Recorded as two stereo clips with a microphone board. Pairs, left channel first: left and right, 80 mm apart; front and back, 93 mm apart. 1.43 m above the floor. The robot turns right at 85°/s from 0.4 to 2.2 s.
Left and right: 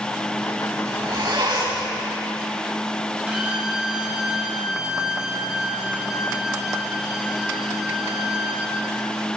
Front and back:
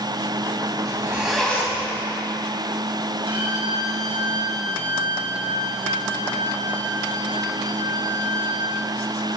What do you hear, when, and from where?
0.8 s a zipper: 135° right, 5 m; by 1.9 s 45° right, 5 m
3.3 s a violin: 165° right, 7 m